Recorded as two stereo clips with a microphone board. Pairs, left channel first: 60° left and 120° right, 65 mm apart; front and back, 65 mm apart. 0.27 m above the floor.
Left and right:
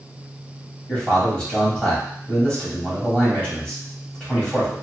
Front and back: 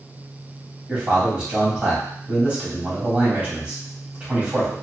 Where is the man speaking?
125° left, 1.6 m.